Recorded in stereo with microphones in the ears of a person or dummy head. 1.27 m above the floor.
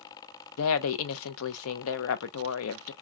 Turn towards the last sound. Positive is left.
turn(degrees=80)